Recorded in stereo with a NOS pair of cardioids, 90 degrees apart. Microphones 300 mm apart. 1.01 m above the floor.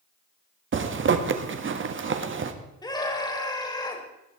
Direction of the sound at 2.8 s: 15° left.